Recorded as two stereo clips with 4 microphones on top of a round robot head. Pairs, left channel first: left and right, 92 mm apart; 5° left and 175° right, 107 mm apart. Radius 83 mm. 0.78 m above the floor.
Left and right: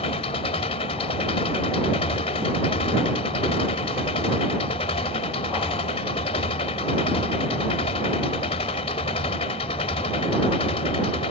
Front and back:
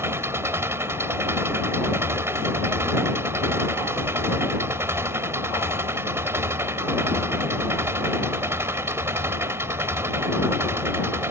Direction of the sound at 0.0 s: 120° left.